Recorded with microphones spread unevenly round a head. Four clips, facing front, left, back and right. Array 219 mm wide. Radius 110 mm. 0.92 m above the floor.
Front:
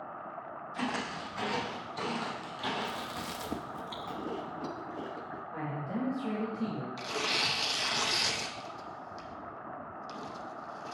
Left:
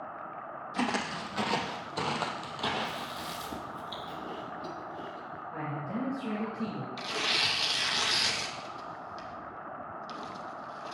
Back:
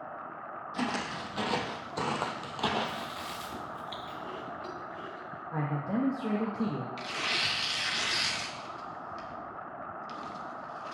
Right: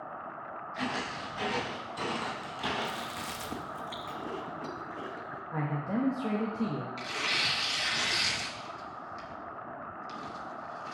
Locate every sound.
0.7 s footsteps: 115° left, 2 m; by 3.1 s 175° right, 1.7 m
2.8 s chewing: 15° right, 1.0 m
5.5 s a man speaking: 145° right, 1.6 m
7.0 s tearing paper: 25° left, 0.8 m